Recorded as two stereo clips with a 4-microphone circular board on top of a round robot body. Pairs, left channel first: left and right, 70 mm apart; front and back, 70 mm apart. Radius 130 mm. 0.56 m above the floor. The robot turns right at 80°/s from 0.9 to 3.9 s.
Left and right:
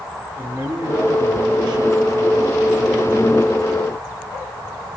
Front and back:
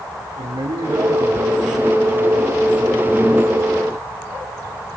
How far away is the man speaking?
About 8.5 m.